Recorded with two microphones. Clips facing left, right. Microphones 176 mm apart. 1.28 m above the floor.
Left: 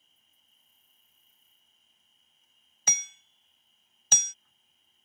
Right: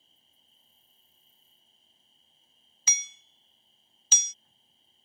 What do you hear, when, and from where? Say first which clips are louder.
0.0 s an insect: right 5 dB; 30° right (ahead or behind)
2.9 s hammering: left 5 dB; 55° left (ahead or behind)